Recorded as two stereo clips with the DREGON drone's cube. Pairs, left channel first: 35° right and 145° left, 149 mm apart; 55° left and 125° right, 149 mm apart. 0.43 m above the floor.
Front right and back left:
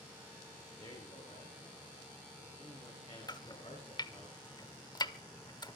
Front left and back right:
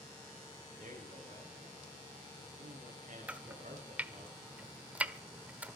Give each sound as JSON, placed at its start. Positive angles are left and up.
{"t": 0.8, "sound": "a man speaking", "azimuth_deg": -90, "distance_m": 8.0}
{"t": 3.3, "sound": "chopping", "azimuth_deg": -55, "distance_m": 1.2}